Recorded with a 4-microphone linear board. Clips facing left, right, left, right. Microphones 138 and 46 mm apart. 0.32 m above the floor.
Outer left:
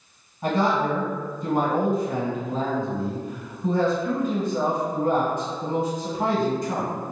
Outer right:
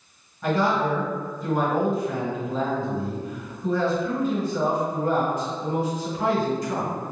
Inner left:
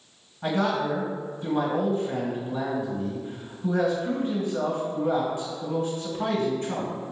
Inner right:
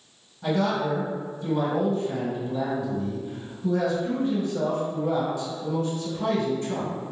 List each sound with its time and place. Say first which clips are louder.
0.4 s a man speaking: even, even; 30° left (ahead or behind), 1.5 m